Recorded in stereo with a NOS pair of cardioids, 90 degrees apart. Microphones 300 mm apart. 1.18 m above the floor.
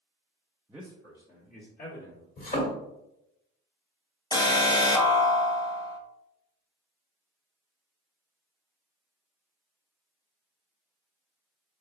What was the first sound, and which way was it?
A man speaking, 10° right.